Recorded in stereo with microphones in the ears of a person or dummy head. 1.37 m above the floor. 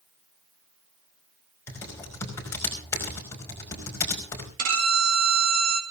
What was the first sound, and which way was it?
Typing on a keyboard, 15° left (ahead or behind).